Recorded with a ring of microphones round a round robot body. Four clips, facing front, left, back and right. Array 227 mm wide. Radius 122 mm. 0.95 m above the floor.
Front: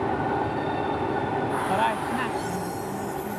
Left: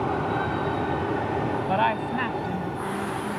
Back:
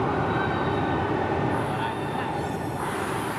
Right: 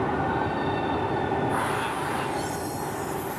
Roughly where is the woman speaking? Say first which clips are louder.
Left 4 dB, front 4 dB; ahead left.